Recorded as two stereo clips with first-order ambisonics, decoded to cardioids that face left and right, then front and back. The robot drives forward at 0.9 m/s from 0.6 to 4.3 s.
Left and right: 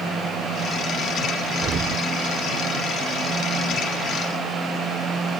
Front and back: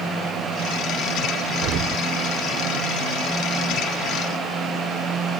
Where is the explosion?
150° right; by 2.0 s 155° right.